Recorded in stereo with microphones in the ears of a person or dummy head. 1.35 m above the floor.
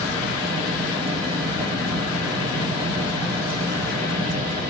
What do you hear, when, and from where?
0.0 s a fan: 25° right (ahead or behind), 1.3 m